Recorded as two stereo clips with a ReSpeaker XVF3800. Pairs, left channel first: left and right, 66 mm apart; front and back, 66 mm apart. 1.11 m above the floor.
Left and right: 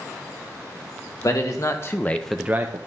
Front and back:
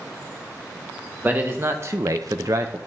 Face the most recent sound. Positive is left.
turn(degrees=-125)